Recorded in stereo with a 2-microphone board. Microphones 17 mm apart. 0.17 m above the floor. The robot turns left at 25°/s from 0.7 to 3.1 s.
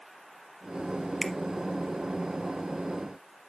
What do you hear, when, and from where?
1.2 s a finger snap: 10° left (ahead or behind), 1.0 m